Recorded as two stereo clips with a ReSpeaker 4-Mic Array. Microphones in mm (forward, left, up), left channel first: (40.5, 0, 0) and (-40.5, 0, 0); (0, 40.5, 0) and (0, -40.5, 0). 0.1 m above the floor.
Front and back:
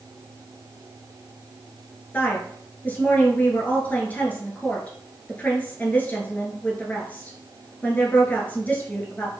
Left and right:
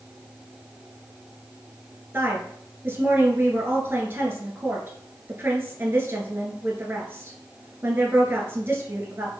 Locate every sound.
2.1 s a woman speaking: 55° right, 1.4 m